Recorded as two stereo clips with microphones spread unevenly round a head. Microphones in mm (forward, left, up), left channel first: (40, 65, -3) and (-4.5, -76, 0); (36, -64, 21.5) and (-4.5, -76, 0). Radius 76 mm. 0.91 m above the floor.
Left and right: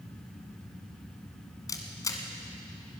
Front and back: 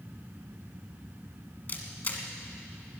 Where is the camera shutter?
5° left, 1.7 m.